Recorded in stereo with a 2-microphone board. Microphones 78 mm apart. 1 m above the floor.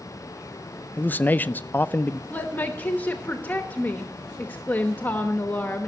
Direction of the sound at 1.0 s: 25° left (ahead or behind).